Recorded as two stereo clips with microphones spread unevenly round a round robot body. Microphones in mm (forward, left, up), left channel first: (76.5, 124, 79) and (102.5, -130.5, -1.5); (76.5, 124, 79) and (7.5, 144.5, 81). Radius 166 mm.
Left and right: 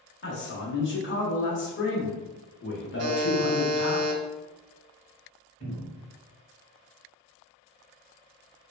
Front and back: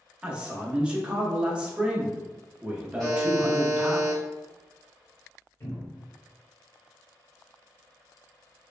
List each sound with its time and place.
0.2 s a man speaking: 100° left, 0.9 m
3.0 s a buzzer: 100° right, 0.5 m
5.6 s a cupboard door: 20° left, 1.8 m